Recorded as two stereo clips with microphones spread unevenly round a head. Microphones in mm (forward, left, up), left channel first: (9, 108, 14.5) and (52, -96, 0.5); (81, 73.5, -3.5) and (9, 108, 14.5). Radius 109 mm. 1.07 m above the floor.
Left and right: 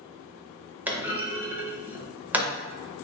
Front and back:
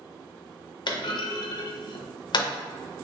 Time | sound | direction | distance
0.9 | a clunk | 5° left | 0.6 m